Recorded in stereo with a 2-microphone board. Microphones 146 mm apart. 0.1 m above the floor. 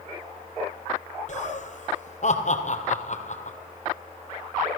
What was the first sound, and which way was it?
Laughter, 55° left (ahead or behind).